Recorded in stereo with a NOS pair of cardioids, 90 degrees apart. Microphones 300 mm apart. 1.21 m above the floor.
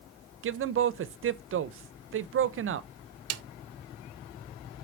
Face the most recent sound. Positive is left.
turn(degrees=-60)